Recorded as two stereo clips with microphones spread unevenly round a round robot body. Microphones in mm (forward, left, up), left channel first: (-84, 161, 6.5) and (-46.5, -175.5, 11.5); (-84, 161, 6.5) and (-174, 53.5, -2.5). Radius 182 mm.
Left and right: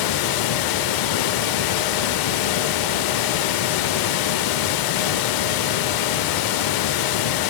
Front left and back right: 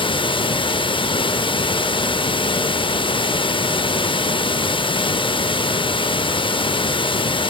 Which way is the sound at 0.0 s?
110° left.